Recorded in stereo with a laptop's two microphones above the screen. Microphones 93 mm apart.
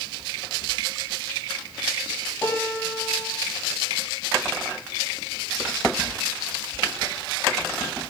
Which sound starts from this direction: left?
A piano, at 2.4 s.